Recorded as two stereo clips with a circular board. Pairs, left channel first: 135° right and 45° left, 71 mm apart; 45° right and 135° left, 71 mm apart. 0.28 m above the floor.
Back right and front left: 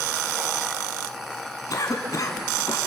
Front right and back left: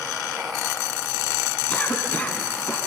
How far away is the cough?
About 3 m.